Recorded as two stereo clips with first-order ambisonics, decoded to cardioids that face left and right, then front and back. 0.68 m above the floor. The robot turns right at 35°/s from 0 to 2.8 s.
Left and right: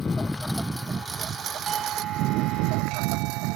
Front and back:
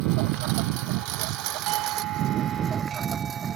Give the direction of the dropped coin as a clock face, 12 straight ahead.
I don't hear a dropped coin.